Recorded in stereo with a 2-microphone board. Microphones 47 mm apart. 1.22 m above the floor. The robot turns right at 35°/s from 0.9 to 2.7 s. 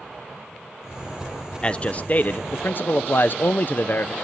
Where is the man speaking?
30° left, 0.6 m; by 4.1 s 70° left, 0.6 m.